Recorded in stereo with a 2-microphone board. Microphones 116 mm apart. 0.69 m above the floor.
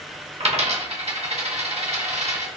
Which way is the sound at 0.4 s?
65° right (ahead or behind).